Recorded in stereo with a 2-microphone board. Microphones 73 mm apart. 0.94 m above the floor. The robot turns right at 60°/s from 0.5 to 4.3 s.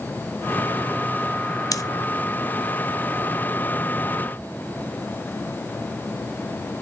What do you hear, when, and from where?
1.7 s scissors: 50° left (ahead or behind), 0.7 m